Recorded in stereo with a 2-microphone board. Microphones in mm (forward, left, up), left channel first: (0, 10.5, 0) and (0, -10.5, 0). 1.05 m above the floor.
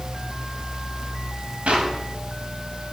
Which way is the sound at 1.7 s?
65° right (ahead or behind).